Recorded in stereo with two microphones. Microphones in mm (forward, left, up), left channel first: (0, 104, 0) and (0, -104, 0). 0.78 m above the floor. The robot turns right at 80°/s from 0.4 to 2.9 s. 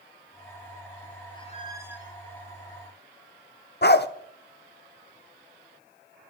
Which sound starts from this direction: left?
A dog barking, at 3.8 s.